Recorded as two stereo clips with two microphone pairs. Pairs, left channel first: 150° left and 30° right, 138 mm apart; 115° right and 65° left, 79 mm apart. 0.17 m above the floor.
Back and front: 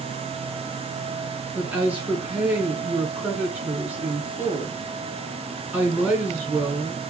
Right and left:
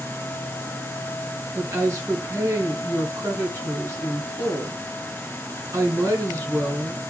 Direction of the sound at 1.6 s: 45° left.